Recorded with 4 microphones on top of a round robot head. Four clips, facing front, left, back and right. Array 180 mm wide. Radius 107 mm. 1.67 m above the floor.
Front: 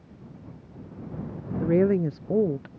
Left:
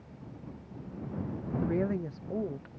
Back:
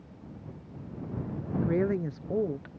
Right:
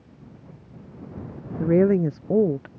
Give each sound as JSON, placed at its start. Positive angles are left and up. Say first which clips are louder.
{"t": 1.6, "sound": "a woman speaking", "louder": "right 13 dB, front 7 dB", "azimuth_deg": -65}